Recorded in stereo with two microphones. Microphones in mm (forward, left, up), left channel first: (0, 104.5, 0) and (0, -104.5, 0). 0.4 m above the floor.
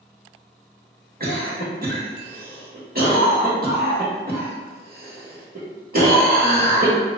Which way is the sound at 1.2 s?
45° right (ahead or behind).